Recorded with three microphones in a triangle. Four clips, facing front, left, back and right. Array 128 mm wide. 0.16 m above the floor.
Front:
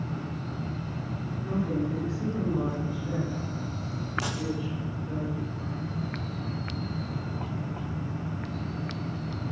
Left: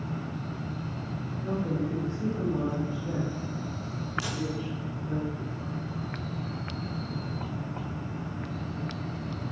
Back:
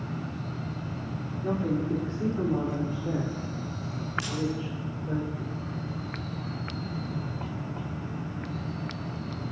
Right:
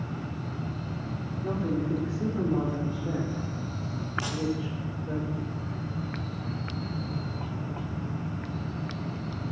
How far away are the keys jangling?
About 6 m.